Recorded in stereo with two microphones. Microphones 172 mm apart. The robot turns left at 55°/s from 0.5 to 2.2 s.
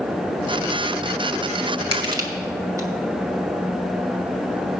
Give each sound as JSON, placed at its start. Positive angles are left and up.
{"t": 1.9, "sound": "crushing", "side_deg": -35, "distance_m": 2.5}